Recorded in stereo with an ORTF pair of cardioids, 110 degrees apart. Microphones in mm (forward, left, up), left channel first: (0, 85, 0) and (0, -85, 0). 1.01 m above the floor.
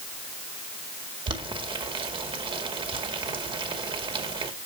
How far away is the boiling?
About 2 m.